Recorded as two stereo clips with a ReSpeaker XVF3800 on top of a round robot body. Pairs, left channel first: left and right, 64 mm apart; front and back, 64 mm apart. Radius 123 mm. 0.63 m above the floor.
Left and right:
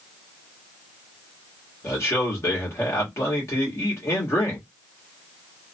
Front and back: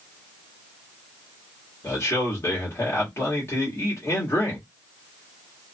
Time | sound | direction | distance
1.8 | a man speaking | 45° left | 1.8 m